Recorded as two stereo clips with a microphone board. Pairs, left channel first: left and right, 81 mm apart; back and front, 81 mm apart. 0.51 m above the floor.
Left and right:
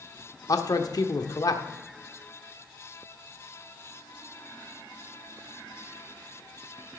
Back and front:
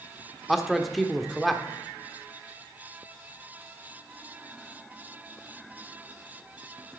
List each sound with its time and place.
0.5 s a man speaking: 90° left, 0.9 m